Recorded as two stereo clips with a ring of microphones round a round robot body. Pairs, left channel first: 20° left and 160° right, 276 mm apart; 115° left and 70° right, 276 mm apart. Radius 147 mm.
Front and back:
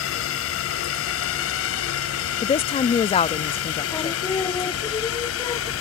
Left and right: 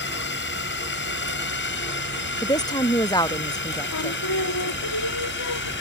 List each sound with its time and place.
0.0 s a drone: 65° left
2.4 s a woman speaking: 60° left
3.9 s singing: 100° left